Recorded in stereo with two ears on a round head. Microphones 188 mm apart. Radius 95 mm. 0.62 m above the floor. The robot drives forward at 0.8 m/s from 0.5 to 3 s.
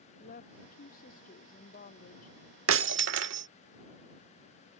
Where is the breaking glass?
70° right (ahead or behind); by 3.5 s 60° right (ahead or behind).